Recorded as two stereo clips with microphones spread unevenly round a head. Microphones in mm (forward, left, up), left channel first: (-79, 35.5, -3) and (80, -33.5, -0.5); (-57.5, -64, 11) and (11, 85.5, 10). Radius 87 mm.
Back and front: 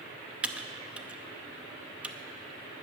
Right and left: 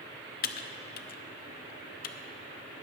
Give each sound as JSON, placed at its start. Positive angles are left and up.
{"t": 0.4, "sound": "typing on a keyboard", "azimuth_deg": -105, "distance_m": 0.6}